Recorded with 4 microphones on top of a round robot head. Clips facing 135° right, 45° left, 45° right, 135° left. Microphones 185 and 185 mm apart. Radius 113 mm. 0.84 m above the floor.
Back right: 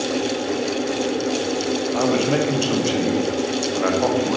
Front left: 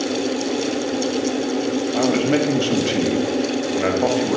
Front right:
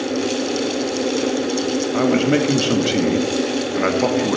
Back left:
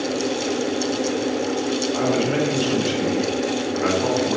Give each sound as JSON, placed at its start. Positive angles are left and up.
{"t": 1.9, "sound": "a man speaking", "azimuth_deg": -30, "distance_m": 1.3}